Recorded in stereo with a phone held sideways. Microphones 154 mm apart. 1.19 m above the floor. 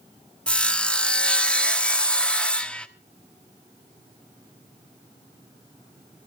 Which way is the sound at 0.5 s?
5° left (ahead or behind).